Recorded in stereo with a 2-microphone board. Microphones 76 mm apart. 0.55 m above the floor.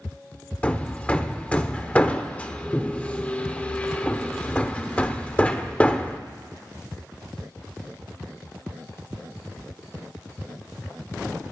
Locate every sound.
0.6 s hammering: 20° left (ahead or behind), 0.7 m